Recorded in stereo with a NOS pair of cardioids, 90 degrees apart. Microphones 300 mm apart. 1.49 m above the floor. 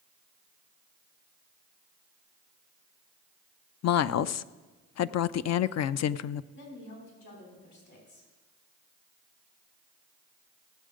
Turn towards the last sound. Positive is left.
turn(degrees=60)